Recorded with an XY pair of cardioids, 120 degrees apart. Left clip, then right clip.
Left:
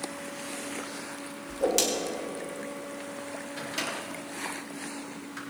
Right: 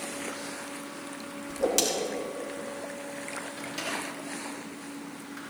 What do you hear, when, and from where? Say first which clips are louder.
1.5 s a whoosh: left 1 dB; straight ahead, 2.5 m
3.6 s a microwave: left 2 dB; 30° left, 3.5 m